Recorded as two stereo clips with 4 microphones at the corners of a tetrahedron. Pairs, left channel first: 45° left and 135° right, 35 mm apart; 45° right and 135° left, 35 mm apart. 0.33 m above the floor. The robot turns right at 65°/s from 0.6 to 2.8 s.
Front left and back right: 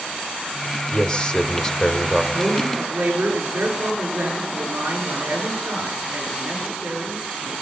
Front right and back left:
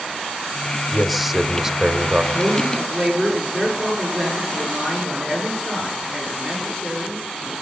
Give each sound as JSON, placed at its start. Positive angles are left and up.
{"t": 0.9, "sound": "a man speaking", "azimuth_deg": 50, "distance_m": 1.1}
{"t": 2.3, "sound": "a man speaking", "azimuth_deg": -155, "distance_m": 6.5}